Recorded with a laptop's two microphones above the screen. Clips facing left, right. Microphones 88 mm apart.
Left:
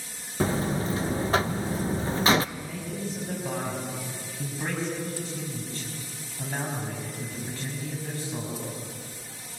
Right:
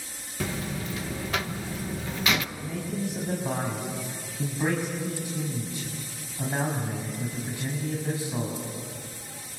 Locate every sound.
0.4 s a buzzer: 35° left (ahead or behind), 0.7 m
2.5 s a man speaking: 15° right (ahead or behind), 6 m